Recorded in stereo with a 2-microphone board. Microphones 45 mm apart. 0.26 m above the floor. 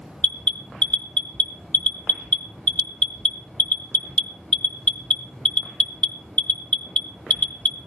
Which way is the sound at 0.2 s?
35° left (ahead or behind).